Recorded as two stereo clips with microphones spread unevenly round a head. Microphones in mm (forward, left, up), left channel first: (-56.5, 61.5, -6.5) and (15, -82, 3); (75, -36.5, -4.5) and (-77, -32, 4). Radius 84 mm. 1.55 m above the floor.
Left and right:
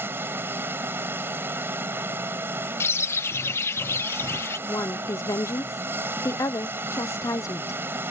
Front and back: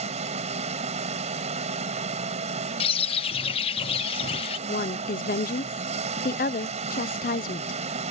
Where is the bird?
45° left.